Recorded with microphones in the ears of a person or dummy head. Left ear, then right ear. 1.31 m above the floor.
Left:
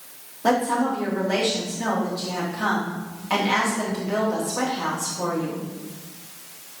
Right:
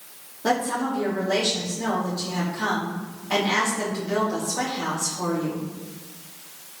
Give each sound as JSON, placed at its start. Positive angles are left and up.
{"t": 0.4, "sound": "a woman speaking", "side_deg": 10, "distance_m": 2.5}